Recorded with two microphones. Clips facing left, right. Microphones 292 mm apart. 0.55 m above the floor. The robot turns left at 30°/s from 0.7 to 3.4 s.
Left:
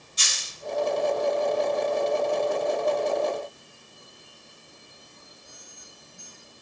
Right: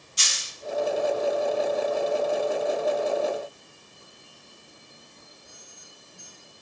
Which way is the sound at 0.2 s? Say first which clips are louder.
Even; 75° right (ahead or behind).